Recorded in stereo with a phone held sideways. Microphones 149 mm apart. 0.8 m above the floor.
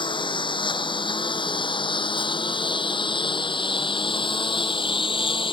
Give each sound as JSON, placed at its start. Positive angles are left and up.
{"t": 0.0, "sound": "a lawn mower", "side_deg": 35}